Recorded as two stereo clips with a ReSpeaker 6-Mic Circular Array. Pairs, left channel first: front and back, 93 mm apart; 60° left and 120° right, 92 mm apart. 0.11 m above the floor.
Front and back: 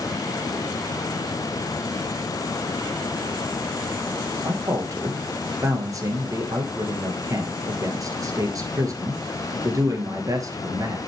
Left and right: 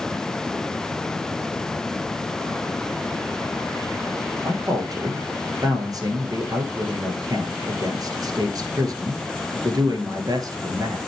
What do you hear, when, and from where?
4.4 s a man speaking: 145° right, 1.6 m